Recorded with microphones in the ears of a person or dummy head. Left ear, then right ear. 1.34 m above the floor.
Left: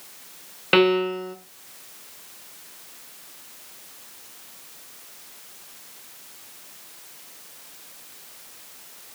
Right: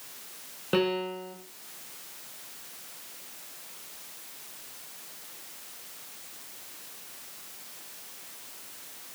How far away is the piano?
About 1.2 m.